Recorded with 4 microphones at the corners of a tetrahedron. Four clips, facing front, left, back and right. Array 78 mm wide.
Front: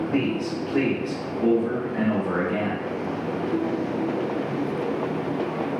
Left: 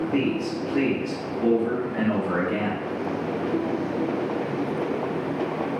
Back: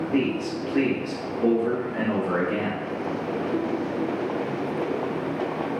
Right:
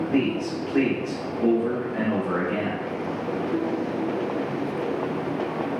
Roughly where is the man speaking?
Ahead right.